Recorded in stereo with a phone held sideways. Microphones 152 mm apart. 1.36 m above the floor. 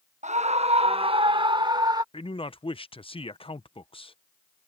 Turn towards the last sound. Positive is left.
turn(degrees=40)  # may be behind; listen again after turning